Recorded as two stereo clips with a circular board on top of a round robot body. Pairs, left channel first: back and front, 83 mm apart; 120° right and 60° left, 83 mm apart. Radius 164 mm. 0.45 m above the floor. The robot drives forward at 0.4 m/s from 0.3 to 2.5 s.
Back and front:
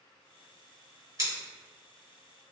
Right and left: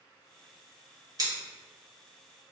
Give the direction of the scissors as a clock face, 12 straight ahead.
11 o'clock.